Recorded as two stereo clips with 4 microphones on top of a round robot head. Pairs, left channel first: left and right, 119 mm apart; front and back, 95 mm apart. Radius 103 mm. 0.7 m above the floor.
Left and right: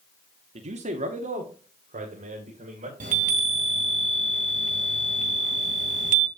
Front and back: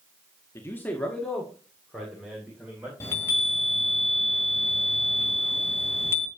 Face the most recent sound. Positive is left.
turn(degrees=-75)